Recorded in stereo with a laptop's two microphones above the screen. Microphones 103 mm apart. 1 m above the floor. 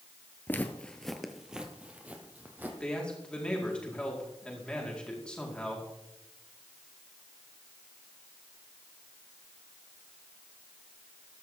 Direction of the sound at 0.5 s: 20° left (ahead or behind).